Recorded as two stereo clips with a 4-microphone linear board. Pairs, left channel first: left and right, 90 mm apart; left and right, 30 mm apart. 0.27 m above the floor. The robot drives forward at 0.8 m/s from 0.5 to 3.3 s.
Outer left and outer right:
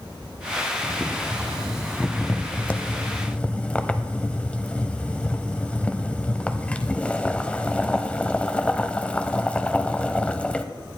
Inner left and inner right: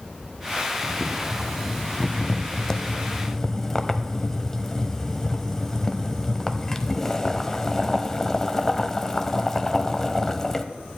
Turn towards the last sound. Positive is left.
turn(degrees=15)  # may be behind; listen again after turning